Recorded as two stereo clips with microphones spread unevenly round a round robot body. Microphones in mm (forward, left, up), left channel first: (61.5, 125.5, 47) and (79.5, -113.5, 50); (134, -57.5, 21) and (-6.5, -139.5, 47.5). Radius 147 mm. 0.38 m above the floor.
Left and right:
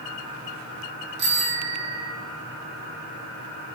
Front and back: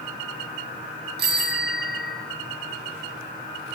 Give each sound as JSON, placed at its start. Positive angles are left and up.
{"t": 1.2, "sound": "a bicycle bell", "azimuth_deg": -140, "distance_m": 5.0}